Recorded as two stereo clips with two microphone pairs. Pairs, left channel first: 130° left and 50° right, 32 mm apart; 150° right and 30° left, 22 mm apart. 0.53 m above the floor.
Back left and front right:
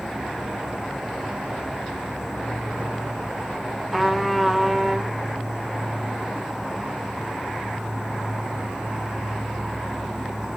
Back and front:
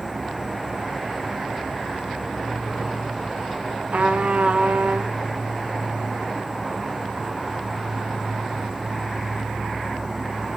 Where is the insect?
5° right, 2 m.